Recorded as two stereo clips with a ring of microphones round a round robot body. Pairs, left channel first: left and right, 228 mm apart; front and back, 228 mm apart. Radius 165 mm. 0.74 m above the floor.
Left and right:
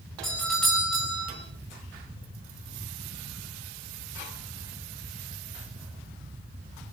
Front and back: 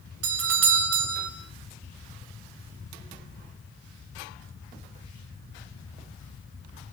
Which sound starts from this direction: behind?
A doorbell, at 0.2 s.